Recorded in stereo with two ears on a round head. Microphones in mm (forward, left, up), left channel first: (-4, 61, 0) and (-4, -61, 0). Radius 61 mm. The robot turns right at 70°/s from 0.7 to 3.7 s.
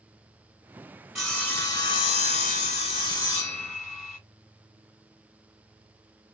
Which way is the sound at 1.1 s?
Straight ahead.